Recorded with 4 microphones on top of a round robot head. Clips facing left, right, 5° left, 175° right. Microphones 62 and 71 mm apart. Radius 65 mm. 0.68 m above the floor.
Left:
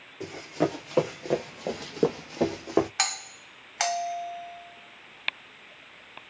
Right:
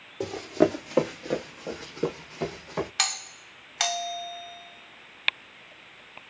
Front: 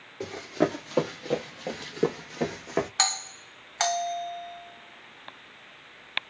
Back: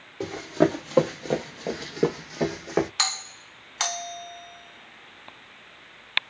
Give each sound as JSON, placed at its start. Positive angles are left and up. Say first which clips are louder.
{"t": 0.2, "sound": "running footsteps", "louder": "right 5 dB, back 4 dB", "azimuth_deg": -110, "distance_m": 0.8}
{"t": 3.0, "sound": "a doorbell", "louder": "left 1 dB, front 1 dB", "azimuth_deg": 40, "distance_m": 1.8}